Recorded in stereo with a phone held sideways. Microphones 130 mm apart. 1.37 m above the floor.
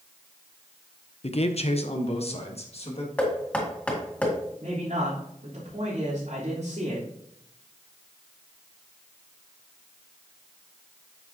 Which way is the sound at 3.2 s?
10° left (ahead or behind).